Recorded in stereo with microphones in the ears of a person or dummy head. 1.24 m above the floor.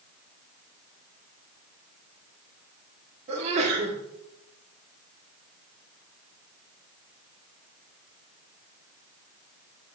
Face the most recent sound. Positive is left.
turn(degrees=-35)  # may be behind; listen again after turning